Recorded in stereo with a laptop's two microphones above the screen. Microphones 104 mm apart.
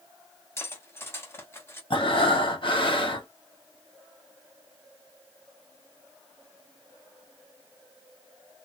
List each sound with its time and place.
0.6 s cutlery clinking: 25° left (ahead or behind), 0.8 m
1.9 s breathing: 50° left (ahead or behind), 1.2 m